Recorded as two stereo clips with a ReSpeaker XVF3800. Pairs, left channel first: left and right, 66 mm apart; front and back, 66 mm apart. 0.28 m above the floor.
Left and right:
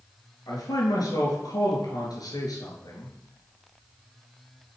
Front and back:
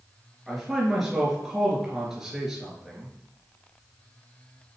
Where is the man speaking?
100° left, 4 m.